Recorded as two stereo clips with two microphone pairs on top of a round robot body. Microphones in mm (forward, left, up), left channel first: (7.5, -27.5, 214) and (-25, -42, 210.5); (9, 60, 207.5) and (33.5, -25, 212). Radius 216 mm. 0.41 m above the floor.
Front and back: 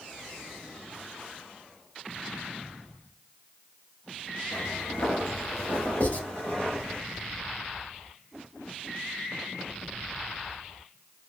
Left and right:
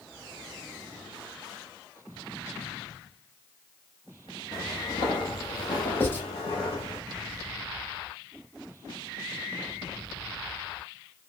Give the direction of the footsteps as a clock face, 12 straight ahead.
11 o'clock.